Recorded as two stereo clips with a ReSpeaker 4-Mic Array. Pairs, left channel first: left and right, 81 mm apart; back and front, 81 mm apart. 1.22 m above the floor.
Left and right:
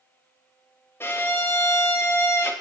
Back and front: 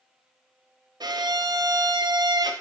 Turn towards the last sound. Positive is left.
turn(degrees=30)